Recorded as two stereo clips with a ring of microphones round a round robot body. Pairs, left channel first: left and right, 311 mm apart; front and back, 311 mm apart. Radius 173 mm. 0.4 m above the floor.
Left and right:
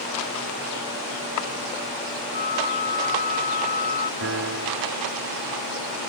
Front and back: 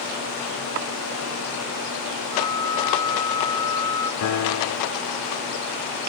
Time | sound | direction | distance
2.3 | a flute | 65° left | ?
4.2 | a piano | 35° right | ?